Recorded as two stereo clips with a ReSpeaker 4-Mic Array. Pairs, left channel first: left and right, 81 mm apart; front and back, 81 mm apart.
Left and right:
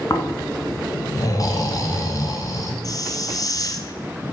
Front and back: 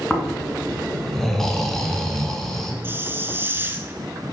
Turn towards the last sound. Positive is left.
turn(degrees=125)